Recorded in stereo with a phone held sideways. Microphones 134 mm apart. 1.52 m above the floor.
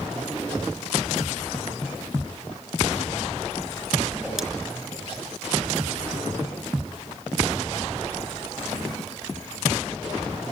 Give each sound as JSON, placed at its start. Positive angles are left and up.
{"t": 4.1, "sound": "a whoosh", "side_deg": 0, "distance_m": 4.0}